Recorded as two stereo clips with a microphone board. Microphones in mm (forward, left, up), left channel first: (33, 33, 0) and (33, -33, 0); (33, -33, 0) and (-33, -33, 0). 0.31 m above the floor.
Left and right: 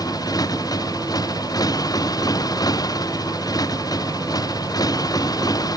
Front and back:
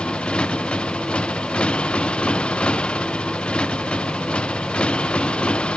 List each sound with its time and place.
0.0 s a motorcycle: 75° left